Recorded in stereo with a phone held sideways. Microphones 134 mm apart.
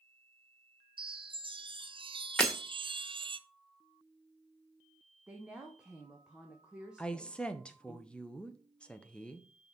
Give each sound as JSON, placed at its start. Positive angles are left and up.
{"t": 1.0, "sound": "a chime", "side_deg": -40, "distance_m": 0.6}
{"t": 2.4, "sound": "breaking glass", "side_deg": 5, "distance_m": 1.4}
{"t": 5.3, "sound": "a woman speaking", "side_deg": -5, "distance_m": 1.1}
{"t": 7.0, "sound": "a woman speaking", "side_deg": 10, "distance_m": 0.8}